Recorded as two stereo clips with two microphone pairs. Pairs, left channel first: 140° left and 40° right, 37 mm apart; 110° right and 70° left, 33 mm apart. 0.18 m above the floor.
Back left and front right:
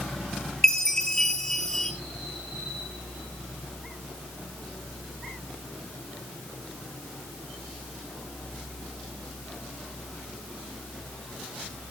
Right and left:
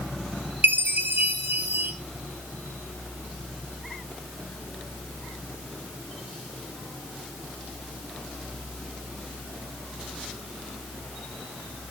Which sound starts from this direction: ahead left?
A chime, at 0.6 s.